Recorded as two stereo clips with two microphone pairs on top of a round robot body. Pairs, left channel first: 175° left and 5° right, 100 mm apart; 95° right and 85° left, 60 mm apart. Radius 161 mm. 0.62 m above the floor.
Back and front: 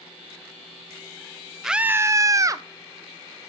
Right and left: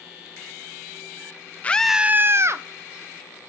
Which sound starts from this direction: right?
A scream, at 1.6 s.